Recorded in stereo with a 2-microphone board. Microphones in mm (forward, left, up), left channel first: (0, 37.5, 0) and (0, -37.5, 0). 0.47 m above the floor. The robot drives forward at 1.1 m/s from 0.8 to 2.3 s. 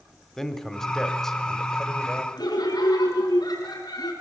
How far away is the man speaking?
About 1.6 m.